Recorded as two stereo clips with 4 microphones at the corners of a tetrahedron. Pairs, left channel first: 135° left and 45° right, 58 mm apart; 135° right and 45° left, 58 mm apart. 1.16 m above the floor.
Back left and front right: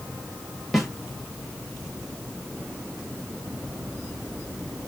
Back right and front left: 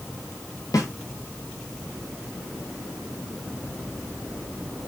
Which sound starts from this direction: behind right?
A snare drum, at 0.7 s.